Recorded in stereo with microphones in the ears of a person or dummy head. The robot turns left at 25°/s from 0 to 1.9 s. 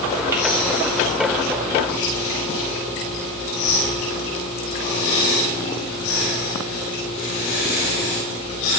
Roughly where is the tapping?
Centre.